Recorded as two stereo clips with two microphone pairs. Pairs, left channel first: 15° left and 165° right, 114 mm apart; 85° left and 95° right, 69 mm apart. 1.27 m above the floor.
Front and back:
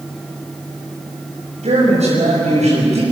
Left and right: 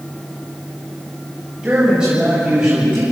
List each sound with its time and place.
1.6 s a man speaking: 170° right, 6.5 m